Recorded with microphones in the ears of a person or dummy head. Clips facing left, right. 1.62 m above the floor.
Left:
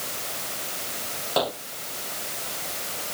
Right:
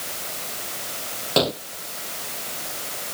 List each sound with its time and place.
1.4 s a gunshot: 30° right (ahead or behind)